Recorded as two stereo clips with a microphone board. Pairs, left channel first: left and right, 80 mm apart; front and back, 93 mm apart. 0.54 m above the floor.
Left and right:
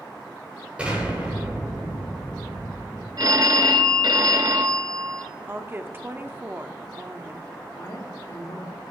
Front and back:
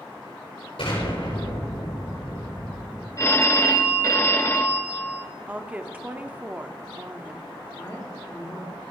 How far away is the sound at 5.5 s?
About 0.9 m.